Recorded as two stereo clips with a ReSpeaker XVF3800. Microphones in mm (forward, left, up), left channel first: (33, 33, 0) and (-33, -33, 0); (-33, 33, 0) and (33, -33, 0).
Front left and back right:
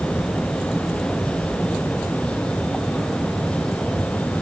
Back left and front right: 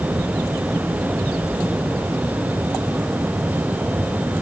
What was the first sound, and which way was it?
Only background noise.